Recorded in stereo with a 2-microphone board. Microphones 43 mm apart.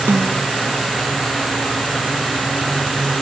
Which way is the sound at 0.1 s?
80° right.